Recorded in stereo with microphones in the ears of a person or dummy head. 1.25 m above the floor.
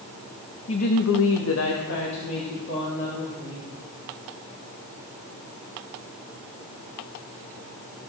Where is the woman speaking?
35° left (ahead or behind), 0.6 m; by 3.7 s 50° left (ahead or behind), 3 m.